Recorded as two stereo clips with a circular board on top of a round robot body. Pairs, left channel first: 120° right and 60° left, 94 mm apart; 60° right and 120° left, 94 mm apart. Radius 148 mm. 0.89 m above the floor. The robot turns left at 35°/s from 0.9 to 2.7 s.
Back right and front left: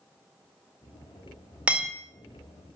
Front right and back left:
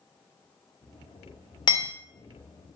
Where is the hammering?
15° right, 1.7 m; by 1.9 s 25° right, 1.7 m.